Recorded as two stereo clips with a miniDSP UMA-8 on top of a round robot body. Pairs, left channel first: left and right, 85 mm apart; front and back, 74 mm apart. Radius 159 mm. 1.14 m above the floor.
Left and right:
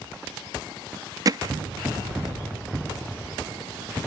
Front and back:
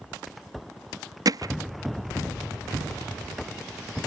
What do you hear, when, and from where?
1.2 s hammering: 140° right